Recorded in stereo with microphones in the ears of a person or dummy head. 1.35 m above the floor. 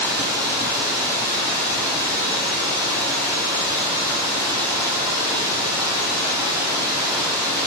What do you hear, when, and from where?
0.0 s running water: 20° right (ahead or behind), 0.7 m